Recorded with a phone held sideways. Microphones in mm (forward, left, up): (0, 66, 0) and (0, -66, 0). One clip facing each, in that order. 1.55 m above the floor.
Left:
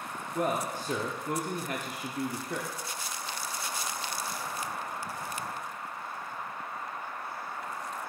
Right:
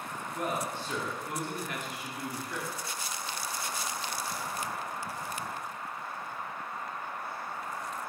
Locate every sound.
0.3 s a man speaking: 45° left (ahead or behind), 0.8 m